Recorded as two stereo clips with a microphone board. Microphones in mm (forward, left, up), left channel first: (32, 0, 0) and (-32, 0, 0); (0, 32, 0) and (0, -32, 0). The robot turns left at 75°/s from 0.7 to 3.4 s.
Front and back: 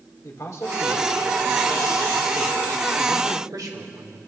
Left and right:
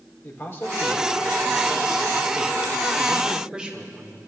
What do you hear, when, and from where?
0.2 s a man speaking: 40° left, 2.5 m; by 4.2 s 165° right, 2.5 m